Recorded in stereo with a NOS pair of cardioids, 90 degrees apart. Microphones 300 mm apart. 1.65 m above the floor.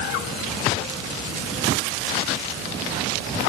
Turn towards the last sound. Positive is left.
No sound to turn to.